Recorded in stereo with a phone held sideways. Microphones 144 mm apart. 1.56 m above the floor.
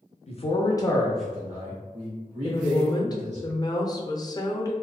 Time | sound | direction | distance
0.3 | a man speaking | 50° left (ahead or behind) | 0.7 m
2.4 | a woman speaking | 25° left (ahead or behind) | 0.5 m